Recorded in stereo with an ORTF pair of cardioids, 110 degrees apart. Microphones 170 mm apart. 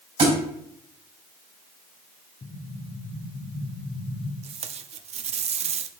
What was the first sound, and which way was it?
A thud, 35° right.